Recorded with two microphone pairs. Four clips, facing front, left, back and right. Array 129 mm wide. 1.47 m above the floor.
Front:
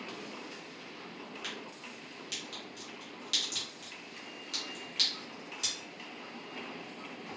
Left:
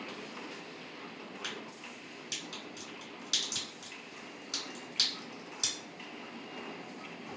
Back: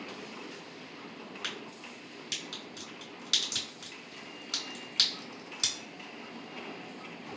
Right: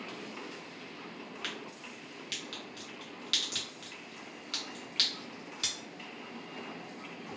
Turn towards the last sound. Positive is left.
turn(degrees=-160)